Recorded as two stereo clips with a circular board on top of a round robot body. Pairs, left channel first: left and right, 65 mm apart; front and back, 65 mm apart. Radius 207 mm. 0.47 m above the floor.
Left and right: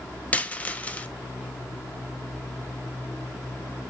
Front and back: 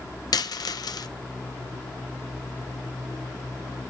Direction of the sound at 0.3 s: 20° left.